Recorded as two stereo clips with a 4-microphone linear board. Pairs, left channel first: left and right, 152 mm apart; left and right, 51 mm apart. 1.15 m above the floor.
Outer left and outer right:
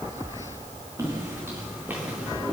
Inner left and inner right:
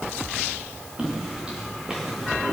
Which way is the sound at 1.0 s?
20° right (ahead or behind).